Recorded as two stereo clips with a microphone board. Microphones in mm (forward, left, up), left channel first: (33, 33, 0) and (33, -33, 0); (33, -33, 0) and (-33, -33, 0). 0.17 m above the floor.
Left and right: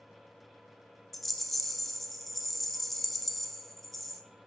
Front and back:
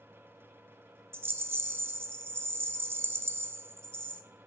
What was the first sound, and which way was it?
A rattle, 175° left.